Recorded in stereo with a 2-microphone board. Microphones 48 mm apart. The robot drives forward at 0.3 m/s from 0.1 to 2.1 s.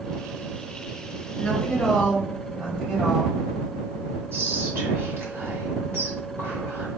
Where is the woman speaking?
10° left (ahead or behind), 1.5 m.